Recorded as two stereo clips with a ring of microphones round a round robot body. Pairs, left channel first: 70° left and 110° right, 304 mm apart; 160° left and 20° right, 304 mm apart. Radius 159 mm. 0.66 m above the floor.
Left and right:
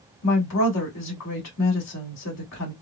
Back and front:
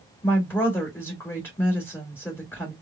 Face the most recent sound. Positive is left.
turn(degrees=75)